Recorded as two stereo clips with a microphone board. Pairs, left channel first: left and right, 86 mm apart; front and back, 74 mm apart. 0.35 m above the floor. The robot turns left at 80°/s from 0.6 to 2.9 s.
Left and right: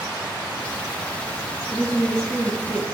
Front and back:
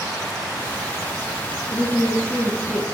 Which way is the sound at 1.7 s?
160° right.